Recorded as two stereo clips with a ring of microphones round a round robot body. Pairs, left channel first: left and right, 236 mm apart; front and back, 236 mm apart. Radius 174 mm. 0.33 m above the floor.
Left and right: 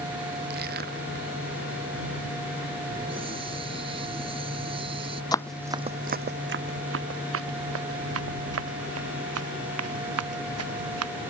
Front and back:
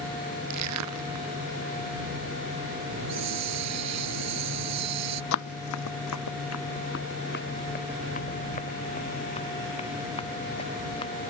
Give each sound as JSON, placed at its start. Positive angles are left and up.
{"t": 0.5, "sound": "crushing", "azimuth_deg": -155}
{"t": 2.9, "sound": "a hiss", "azimuth_deg": -165}
{"t": 5.3, "sound": "running footsteps", "azimuth_deg": 15}